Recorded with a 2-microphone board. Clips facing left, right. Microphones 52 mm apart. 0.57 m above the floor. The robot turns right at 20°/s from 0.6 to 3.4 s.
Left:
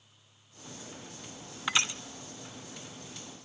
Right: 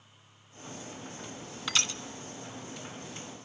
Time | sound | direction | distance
1.7 | crushing | 25° left (ahead or behind) | 0.9 m